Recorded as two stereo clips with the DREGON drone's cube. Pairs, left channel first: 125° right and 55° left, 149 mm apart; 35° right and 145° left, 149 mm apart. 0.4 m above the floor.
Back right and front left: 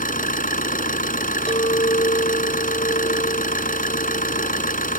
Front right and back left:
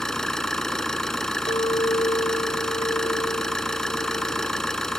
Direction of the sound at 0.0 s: 120° right.